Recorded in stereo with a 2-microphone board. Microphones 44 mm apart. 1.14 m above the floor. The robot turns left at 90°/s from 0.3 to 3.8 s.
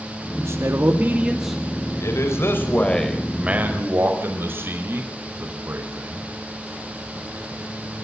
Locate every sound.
0.4 s a man speaking: 75° right, 2 m; by 1.6 s 170° left, 2 m
2.0 s a man speaking: 105° left, 4.5 m; by 6.3 s 55° right, 4.5 m